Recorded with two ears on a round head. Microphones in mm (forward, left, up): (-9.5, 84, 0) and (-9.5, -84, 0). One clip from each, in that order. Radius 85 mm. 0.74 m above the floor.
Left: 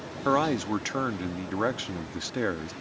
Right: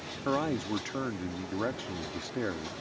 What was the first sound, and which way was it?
A man speaking, 30° left (ahead or behind).